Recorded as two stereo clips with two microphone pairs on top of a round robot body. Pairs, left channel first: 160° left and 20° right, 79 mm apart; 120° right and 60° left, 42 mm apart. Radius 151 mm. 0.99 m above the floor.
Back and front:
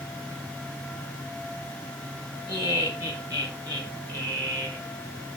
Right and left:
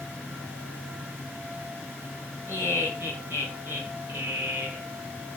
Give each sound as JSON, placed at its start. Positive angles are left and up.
{"t": 2.5, "sound": "laughter", "azimuth_deg": 20, "distance_m": 4.5}